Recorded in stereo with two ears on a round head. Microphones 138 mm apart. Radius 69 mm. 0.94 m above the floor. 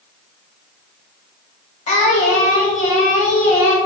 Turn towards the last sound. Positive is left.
turn(degrees=50)  # may be behind; listen again after turning